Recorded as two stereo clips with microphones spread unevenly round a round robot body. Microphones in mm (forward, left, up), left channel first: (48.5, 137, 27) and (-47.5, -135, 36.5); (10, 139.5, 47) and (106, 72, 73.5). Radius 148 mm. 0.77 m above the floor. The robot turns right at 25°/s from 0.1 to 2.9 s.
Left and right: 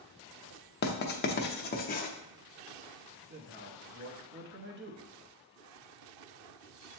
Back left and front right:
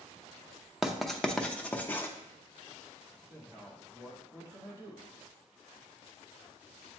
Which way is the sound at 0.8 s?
70° left.